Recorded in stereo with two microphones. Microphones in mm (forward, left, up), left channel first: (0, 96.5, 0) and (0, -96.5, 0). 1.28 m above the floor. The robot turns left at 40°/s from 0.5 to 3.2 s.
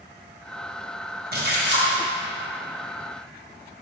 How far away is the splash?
About 1.5 m.